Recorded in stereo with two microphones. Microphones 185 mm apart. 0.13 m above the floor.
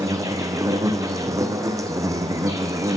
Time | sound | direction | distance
0.0 | an insect | 15° right (ahead or behind) | 0.7 m